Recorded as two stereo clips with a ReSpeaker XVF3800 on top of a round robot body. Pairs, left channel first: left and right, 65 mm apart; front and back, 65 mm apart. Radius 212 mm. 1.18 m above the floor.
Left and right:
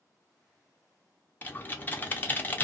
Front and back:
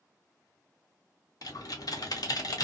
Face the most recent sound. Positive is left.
turn(degrees=25)